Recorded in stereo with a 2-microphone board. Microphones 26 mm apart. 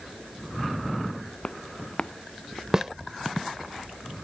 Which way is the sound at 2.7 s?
20° right (ahead or behind).